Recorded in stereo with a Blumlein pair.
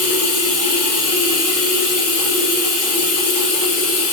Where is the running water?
40° left, 1.5 m.